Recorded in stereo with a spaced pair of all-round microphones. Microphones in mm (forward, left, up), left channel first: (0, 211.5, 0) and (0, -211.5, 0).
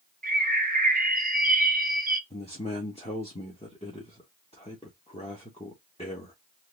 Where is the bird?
20° right (ahead or behind), 0.7 m.